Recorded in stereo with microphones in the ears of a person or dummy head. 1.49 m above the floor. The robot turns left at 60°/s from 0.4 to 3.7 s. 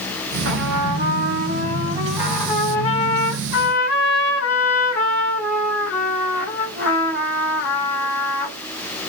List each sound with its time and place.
0.5 s a trumpet: 70° right, 2.0 m; by 8.6 s 95° left, 2.0 m